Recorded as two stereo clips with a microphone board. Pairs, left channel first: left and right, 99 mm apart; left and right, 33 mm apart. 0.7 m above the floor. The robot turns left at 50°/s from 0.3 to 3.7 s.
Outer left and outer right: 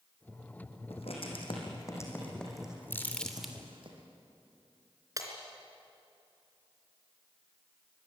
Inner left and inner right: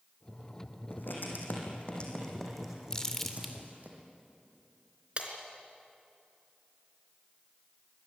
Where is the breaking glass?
35° right (ahead or behind), 3.5 m.